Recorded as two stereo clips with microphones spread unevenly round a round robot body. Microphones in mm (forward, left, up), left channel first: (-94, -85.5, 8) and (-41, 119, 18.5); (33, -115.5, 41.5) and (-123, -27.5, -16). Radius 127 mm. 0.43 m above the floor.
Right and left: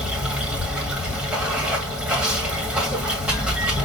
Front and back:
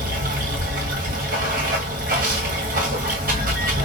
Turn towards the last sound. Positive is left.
turn(degrees=160)